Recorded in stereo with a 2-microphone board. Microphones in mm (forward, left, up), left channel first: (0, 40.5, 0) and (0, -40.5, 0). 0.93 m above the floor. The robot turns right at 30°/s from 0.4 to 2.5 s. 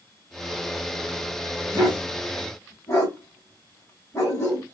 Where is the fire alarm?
I don't hear a fire alarm.